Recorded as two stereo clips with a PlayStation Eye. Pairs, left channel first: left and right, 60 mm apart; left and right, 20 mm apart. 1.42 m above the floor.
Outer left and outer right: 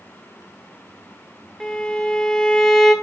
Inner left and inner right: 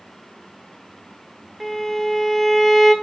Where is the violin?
10° left (ahead or behind), 1.7 m.